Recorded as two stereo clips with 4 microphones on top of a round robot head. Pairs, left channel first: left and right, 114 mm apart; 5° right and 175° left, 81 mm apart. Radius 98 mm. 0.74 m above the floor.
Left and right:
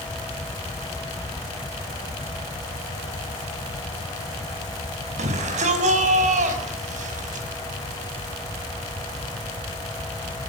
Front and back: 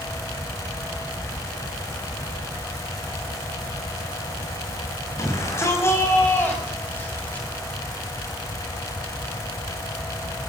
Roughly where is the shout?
Ahead right.